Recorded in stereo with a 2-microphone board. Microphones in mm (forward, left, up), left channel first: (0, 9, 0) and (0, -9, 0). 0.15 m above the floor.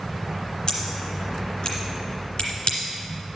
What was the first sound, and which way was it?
Scissors, 45° left (ahead or behind).